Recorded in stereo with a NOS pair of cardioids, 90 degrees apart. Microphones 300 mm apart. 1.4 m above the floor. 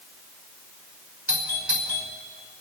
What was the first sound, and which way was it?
A doorbell, 5° right.